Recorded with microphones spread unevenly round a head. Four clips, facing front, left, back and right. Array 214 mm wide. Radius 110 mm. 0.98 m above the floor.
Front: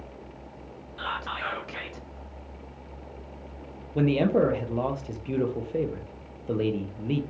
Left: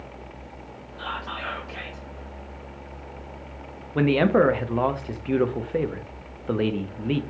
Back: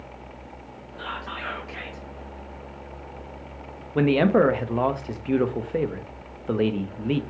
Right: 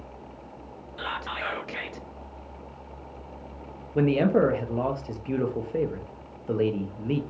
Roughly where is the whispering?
Right.